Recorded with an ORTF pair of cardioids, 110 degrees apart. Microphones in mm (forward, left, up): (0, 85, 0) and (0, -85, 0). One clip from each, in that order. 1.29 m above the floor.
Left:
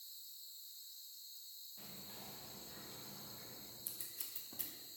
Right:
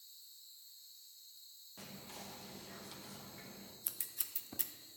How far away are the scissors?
About 0.7 m.